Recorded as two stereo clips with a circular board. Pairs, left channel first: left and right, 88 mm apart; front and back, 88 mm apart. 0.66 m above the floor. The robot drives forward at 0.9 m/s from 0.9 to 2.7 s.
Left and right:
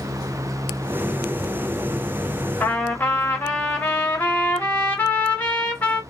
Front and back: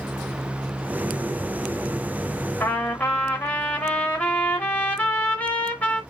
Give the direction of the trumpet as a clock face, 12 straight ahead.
11 o'clock.